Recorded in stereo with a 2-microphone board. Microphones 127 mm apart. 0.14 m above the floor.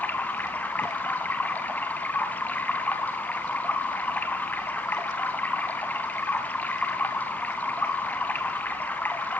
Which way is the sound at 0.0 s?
15° left (ahead or behind).